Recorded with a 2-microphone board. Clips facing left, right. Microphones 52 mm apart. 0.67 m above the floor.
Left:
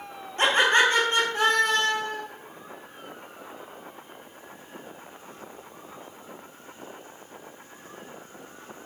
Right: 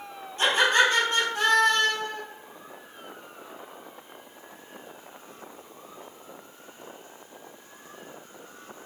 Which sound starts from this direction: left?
Laughter, at 0.4 s.